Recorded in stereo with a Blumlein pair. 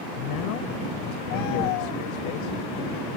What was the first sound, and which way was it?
A man speaking, 45° left.